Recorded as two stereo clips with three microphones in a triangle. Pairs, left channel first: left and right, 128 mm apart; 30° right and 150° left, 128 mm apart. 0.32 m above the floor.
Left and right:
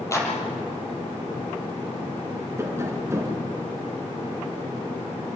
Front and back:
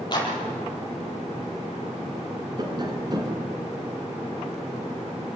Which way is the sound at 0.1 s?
25° left.